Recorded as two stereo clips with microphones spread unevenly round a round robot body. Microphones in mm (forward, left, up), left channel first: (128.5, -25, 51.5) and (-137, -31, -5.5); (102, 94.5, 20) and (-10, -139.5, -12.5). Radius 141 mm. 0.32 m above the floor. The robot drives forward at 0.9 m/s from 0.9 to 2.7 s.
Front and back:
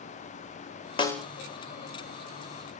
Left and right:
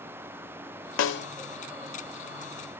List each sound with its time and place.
1.0 s a snare drum: 80° left, 0.6 m; by 1.3 s 115° left, 0.6 m